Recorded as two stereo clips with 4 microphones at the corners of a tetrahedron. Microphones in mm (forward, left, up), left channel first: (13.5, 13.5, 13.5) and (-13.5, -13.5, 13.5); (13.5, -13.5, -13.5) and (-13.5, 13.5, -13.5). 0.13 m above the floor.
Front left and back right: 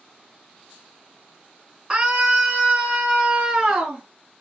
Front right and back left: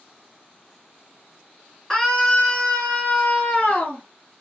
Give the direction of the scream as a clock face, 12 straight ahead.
3 o'clock.